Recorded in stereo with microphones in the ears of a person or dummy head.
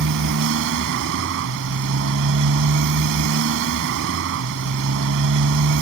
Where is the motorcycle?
65° right (ahead or behind).